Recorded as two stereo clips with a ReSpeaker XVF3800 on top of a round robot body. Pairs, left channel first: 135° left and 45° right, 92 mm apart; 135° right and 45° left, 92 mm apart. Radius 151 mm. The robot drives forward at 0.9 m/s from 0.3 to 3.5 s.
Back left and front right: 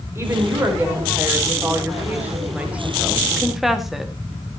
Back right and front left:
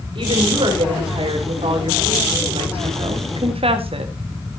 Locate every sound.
0.1 s a woman speaking: 20° left, 4.5 m; by 4.1 s 45° left, 2 m